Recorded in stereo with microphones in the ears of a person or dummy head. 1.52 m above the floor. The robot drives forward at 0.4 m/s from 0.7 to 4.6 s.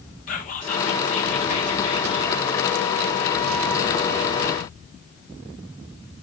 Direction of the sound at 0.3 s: 40° left (ahead or behind).